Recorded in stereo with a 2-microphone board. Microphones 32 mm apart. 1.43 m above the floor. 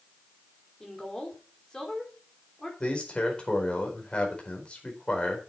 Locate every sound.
0.8 s a woman speaking: 20° left (ahead or behind), 4 m
2.8 s a man speaking: 35° left (ahead or behind), 4.5 m